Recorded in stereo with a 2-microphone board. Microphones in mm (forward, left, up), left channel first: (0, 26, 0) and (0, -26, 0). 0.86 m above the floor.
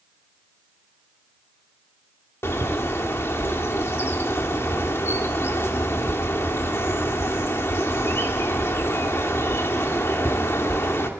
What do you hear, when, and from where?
2.4 s a bird: 55° left (ahead or behind), 2 m